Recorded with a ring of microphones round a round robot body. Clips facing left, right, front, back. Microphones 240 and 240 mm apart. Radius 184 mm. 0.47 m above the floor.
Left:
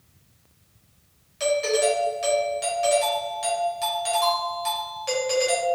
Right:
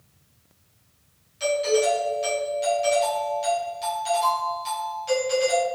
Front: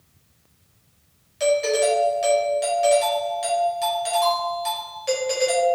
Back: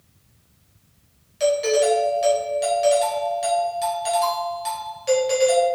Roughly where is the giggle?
I don't hear a giggle.